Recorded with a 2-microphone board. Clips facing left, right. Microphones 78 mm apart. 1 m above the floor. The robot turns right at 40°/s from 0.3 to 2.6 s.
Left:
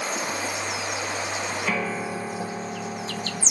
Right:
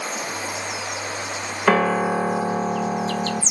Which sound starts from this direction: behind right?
A piano, at 1.7 s.